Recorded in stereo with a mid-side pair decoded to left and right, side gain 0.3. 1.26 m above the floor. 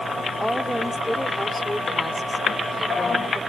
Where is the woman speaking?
Straight ahead; by 3.4 s 10° left.